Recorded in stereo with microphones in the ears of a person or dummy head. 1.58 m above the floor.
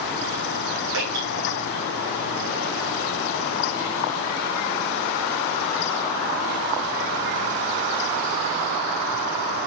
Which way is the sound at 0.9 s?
65° right (ahead or behind).